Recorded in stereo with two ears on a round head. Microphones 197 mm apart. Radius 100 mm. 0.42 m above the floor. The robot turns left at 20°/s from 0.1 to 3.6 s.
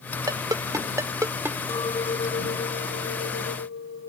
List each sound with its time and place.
0.3 s a ringtone: 15° right (ahead or behind); by 1.6 s 10° right (ahead or behind)
1.7 s a clink: 160° left; by 4.1 s 125° left